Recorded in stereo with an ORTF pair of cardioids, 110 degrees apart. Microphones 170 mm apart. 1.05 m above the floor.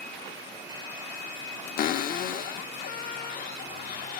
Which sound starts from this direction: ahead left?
A cupboard door, at 1.8 s.